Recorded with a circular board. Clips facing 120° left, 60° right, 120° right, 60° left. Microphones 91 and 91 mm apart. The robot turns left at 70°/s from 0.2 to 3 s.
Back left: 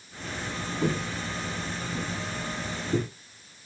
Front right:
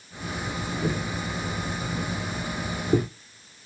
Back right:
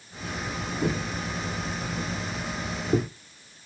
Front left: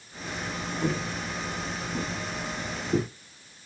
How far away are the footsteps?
About 0.9 m.